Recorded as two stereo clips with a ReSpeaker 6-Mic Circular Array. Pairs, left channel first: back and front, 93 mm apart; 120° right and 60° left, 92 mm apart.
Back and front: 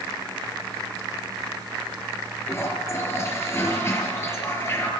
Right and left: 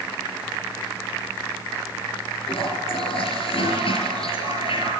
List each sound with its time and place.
2.5 s a toilet flushing: 120° right, 4.5 m